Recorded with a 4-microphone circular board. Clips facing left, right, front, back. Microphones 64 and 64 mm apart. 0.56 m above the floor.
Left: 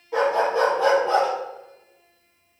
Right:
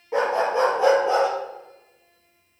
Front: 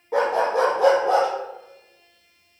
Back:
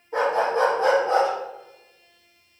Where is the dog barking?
25° right, 3 m; by 1.3 s 15° right, 3 m.